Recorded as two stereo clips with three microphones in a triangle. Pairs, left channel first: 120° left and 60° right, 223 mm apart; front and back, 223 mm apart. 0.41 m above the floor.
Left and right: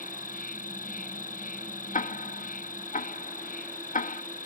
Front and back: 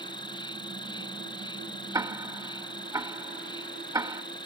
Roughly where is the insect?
Left.